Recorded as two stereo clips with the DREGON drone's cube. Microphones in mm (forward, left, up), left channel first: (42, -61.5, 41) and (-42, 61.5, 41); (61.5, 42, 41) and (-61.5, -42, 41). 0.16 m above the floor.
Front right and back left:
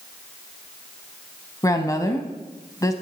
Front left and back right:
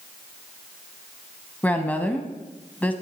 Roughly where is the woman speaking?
Ahead right.